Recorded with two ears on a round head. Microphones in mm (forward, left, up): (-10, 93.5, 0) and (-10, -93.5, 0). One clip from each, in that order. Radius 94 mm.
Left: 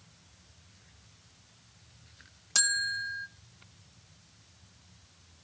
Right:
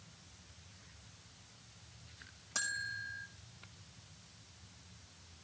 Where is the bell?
75° left (ahead or behind), 1.0 m.